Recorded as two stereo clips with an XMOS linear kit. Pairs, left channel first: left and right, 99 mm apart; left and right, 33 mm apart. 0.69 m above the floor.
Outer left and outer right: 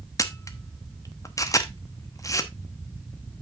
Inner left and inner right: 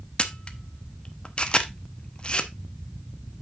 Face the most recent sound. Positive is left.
turn(degrees=35)  # may be behind; listen again after turning